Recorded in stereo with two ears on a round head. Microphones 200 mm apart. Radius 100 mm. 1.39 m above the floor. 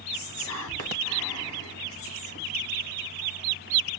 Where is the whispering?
60° left (ahead or behind), 1.1 m.